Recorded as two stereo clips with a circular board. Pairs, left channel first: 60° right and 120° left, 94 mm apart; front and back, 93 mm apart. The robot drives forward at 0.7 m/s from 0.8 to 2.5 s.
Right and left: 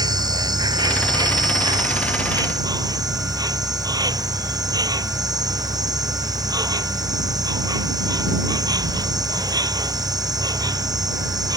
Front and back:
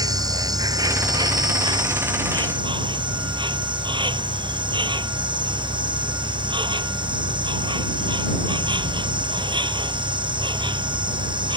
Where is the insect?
145° left; by 11.6 s 160° left.